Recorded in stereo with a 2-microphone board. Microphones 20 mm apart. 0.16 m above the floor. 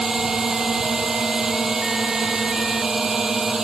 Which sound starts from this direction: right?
A drone, at 0.0 s.